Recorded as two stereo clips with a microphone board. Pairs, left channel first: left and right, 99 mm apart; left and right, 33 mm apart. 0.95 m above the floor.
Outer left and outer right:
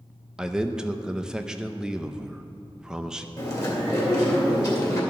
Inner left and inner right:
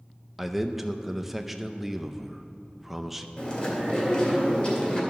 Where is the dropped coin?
I don't hear a dropped coin.